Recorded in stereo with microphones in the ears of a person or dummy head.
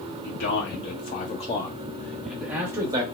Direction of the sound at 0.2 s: 60° left (ahead or behind).